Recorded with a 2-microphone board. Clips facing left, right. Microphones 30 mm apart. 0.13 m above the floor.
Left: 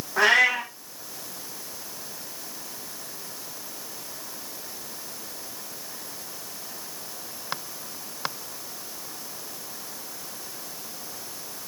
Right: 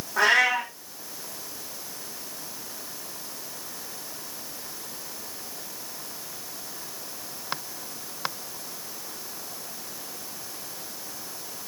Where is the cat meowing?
5° left (ahead or behind), 4 m.